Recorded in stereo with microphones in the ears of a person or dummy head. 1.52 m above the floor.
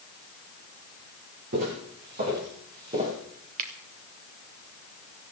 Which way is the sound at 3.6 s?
45° right (ahead or behind).